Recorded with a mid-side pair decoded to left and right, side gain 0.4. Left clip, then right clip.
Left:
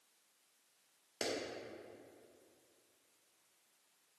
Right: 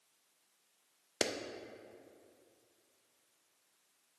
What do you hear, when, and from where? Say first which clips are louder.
1.2 s a clap: right 5 dB; 70° right, 0.5 m